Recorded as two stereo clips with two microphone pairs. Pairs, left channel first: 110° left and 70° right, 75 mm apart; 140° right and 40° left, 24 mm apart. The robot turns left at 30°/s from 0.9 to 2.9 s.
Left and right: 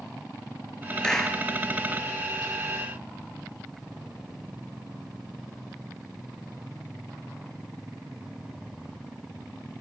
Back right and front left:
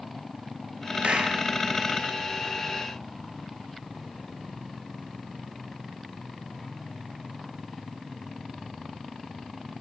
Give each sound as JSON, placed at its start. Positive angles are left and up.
{"t": 1.0, "sound": "a clap", "azimuth_deg": 35, "distance_m": 1.9}